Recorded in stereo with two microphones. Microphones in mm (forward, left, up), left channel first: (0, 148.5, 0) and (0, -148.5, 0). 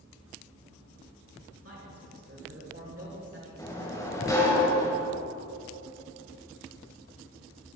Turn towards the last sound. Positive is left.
turn(degrees=10)  # may be behind; listen again after turning